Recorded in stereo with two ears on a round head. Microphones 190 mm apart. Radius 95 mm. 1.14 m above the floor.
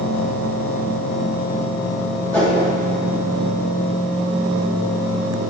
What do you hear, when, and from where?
2.3 s a whoosh: 10° left (ahead or behind), 3 m